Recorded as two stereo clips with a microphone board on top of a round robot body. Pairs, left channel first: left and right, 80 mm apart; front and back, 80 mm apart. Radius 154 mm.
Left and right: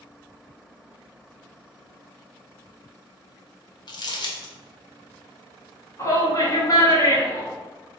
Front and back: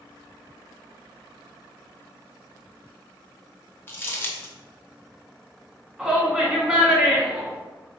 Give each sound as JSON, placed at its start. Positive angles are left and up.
{"t": 3.9, "sound": "crumpling", "azimuth_deg": 65, "distance_m": 1.0}
{"t": 6.0, "sound": "a shout", "azimuth_deg": 105, "distance_m": 1.7}